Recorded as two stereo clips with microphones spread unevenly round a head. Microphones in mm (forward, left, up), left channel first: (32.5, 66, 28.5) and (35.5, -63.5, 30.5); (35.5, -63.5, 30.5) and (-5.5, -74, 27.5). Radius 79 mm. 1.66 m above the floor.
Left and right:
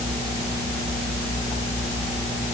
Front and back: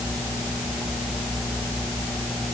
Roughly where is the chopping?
No chopping in this recording.